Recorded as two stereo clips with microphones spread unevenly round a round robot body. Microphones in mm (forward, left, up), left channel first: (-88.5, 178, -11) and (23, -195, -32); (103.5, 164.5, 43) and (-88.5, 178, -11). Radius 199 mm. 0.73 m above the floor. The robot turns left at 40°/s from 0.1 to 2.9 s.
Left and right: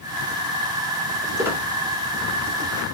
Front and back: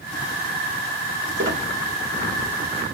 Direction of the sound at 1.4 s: 155° right.